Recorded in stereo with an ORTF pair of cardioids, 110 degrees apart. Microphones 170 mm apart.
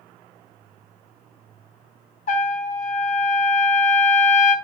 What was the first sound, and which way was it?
A trumpet, 50° left.